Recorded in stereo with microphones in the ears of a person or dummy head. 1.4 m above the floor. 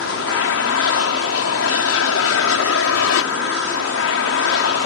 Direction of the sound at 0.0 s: 70° left (ahead or behind).